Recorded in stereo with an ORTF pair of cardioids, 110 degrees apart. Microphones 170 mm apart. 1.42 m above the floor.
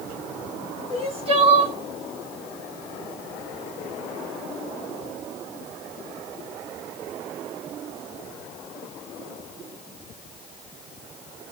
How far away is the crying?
About 0.7 m.